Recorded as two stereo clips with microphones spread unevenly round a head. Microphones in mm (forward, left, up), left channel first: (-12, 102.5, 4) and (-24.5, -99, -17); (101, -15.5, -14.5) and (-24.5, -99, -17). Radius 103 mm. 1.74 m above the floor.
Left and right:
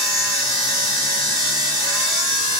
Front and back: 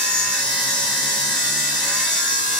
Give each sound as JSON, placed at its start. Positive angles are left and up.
{"t": 0.0, "sound": "a machine running", "azimuth_deg": 40, "distance_m": 2.5}